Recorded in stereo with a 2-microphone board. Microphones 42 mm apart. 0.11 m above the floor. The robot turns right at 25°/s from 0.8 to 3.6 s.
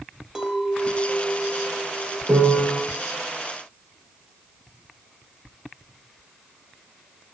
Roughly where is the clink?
Ahead.